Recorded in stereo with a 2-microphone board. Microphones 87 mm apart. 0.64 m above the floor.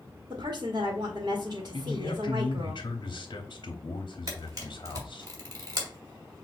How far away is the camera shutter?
About 2 m.